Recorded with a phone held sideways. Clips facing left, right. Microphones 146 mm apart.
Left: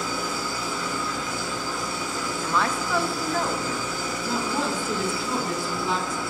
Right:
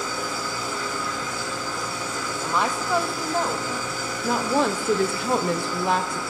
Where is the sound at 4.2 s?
65° right (ahead or behind), 0.6 m.